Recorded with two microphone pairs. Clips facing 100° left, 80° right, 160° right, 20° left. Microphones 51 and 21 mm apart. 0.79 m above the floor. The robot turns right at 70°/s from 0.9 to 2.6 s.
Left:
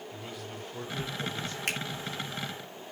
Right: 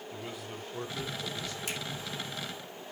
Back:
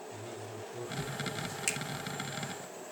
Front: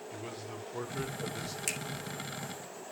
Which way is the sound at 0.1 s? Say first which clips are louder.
Even, front 3 dB; 5° left.